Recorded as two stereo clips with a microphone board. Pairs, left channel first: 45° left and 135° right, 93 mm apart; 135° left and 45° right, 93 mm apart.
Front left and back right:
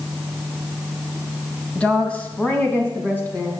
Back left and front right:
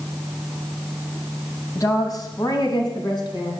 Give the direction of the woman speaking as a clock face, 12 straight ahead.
8 o'clock.